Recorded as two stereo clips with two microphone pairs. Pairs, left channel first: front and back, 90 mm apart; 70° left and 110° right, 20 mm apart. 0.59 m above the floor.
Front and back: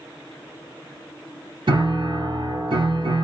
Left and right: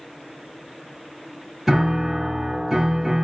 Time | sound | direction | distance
1.7 | a piano | 170° right | 1.0 m